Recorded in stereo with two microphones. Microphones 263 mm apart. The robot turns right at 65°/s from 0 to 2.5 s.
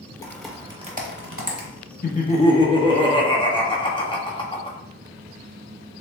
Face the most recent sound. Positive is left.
turn(degrees=155)